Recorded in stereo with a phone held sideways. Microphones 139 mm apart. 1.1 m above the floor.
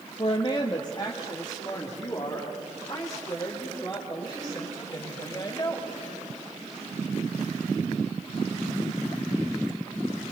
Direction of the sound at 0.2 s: 40° left (ahead or behind).